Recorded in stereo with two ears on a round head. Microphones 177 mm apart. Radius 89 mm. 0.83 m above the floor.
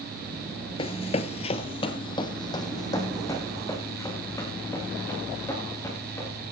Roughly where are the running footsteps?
Left.